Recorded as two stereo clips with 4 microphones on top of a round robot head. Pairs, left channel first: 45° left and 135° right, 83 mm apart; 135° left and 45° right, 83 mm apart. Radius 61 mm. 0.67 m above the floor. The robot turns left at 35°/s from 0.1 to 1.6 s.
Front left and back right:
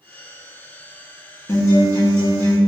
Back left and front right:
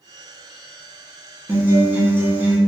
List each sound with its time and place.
1.5 s a guitar: 10° left, 1.3 m; by 2.6 s 5° left, 1.3 m